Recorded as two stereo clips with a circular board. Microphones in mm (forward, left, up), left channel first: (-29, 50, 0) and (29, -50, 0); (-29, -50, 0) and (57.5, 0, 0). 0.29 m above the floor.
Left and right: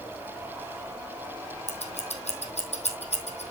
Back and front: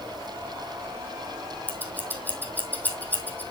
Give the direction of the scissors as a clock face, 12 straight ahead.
7 o'clock.